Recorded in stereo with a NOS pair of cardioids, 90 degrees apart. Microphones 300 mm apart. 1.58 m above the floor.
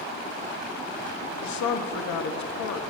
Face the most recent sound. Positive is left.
turn(degrees=65)